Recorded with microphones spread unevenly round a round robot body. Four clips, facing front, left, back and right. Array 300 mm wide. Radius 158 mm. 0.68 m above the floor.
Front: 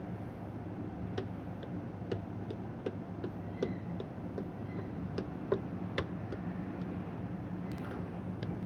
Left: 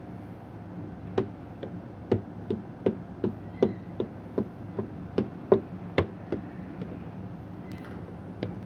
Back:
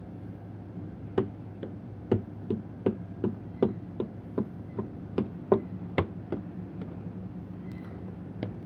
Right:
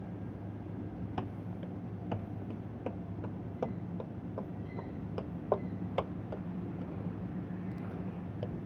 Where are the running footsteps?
150° left; by 8.6 s 130° left.